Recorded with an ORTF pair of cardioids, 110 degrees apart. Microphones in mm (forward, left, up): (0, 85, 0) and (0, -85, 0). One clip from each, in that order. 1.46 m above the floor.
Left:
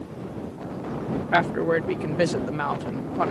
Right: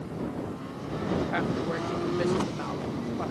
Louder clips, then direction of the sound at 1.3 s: Left 8 dB; 55° left.